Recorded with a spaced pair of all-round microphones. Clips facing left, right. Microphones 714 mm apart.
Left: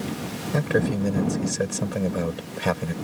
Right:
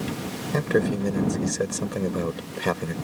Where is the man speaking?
20° left (ahead or behind).